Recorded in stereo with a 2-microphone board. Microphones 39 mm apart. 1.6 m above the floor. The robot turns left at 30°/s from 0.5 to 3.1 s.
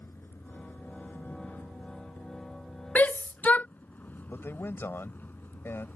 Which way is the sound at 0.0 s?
65° left (ahead or behind).